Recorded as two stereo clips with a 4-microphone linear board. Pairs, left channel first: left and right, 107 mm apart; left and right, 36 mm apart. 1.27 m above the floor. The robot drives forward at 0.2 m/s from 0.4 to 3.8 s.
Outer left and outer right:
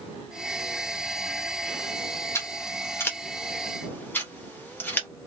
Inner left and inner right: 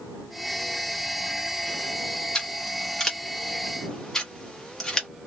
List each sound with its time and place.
2.4 s scissors: 25° left (ahead or behind), 0.8 m; by 5.1 s 20° left (ahead or behind), 1.0 m